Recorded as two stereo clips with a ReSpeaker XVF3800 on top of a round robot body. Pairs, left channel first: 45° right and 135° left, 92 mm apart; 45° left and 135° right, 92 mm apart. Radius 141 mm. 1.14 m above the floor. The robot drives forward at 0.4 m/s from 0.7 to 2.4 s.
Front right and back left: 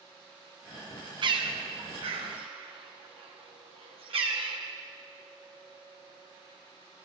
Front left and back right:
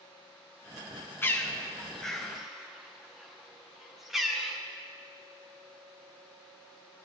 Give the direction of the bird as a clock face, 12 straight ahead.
8 o'clock.